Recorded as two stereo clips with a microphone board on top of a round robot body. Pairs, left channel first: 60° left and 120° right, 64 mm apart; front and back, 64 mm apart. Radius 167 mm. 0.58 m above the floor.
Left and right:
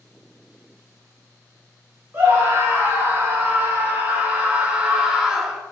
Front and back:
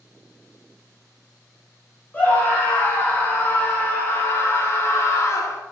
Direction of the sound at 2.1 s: 65° right.